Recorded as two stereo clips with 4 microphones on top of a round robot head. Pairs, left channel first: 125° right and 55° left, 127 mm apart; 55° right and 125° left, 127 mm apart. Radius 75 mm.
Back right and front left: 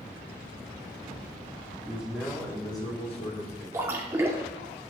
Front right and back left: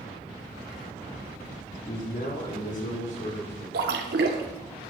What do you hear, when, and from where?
1.9 s a man speaking: 25° right, 1.9 m; by 3.6 s 95° right, 2.5 m
3.7 s a splash: 125° left, 0.7 m